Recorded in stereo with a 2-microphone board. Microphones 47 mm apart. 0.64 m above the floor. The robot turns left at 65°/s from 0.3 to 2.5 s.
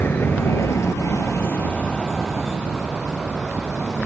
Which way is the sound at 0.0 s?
50° left (ahead or behind).